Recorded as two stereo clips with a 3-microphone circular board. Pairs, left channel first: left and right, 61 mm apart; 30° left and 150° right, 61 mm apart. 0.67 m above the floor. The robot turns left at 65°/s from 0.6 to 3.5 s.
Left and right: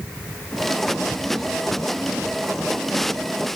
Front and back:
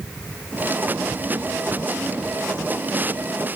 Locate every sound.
Only background noise.